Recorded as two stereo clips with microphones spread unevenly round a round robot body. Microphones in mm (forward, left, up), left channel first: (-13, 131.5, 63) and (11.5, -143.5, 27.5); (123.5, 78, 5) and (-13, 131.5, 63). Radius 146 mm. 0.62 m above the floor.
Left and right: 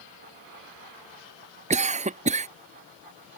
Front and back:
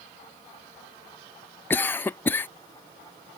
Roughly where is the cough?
Ahead right.